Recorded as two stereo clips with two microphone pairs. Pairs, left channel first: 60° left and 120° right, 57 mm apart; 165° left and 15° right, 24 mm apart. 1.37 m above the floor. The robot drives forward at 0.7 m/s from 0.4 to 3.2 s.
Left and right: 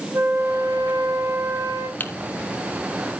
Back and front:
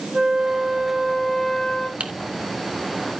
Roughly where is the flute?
Right.